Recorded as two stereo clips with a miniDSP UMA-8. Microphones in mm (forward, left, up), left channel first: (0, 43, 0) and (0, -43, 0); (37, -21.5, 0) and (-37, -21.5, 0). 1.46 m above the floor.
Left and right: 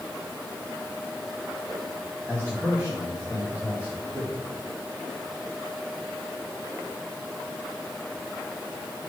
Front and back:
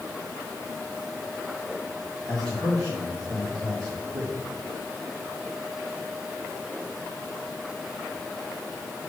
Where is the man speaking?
155° right, 2.5 m.